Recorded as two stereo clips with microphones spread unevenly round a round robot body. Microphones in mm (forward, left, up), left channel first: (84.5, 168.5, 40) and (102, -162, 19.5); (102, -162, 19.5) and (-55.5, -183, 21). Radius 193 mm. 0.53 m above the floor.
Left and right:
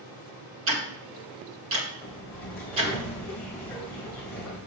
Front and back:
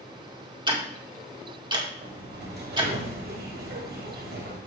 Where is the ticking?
120° right, 1.9 m.